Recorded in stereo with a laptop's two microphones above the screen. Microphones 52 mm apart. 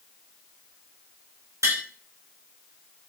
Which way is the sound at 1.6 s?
75° right (ahead or behind).